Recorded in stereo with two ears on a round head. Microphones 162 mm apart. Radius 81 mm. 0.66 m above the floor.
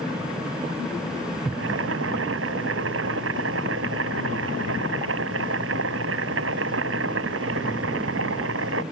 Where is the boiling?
80° right.